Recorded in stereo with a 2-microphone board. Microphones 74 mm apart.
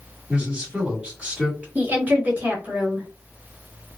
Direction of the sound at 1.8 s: 20° right (ahead or behind).